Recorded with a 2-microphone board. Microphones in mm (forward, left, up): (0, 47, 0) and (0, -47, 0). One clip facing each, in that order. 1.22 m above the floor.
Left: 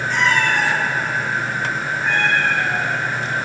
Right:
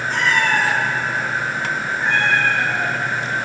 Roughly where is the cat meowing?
Right.